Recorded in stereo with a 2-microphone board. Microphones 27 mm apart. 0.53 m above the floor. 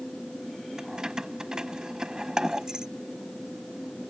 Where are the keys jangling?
30° right (ahead or behind).